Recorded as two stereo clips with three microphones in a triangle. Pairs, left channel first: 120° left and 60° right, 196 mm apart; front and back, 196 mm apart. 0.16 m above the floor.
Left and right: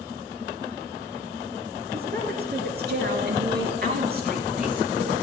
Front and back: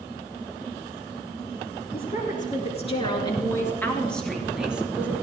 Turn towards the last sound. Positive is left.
turn(degrees=-100)